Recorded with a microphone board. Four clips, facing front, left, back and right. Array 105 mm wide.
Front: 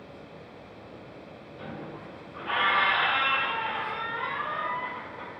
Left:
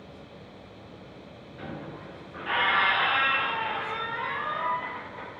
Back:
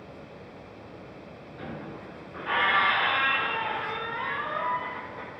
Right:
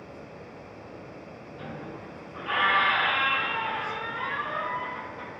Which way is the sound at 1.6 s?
130° left.